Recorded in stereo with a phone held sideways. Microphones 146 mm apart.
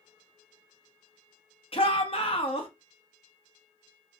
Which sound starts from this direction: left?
A shout, at 1.7 s.